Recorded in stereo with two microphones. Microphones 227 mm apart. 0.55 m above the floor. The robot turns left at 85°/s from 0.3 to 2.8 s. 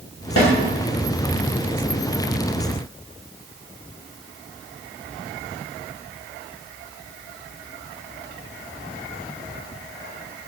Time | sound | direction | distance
0.4 | a snare drum | 85° left | 1.2 m